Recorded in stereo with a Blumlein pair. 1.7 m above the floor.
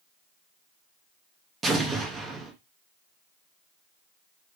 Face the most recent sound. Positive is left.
turn(degrees=-15)